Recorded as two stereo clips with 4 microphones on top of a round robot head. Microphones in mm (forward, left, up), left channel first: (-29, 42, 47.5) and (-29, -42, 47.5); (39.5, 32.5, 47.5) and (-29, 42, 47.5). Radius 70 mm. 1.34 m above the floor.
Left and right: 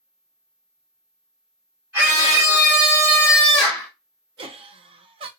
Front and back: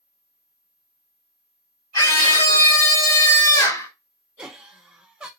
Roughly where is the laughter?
Right.